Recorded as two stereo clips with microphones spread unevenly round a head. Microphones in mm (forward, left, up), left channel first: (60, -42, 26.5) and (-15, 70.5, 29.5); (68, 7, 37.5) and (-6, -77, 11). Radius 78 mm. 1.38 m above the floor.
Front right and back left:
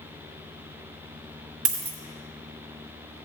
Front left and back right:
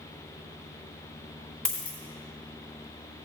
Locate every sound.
1.6 s a dropped coin: 115° left, 1.4 m